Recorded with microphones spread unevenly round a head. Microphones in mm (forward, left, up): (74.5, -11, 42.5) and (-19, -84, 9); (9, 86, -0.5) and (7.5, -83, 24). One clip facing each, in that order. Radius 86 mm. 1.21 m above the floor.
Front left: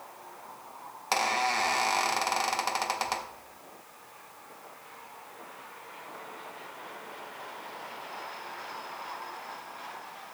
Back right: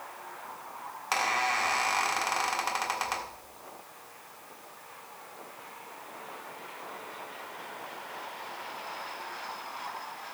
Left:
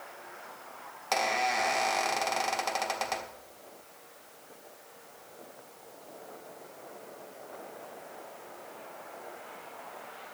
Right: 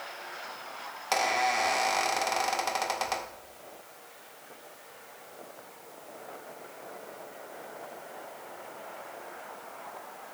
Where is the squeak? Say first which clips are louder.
Front left 2 dB, right 1 dB; 5° right, 1.3 m.